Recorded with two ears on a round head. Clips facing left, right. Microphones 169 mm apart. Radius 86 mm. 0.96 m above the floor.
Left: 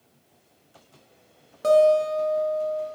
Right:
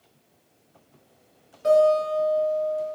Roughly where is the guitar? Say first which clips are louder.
Left 1 dB; left.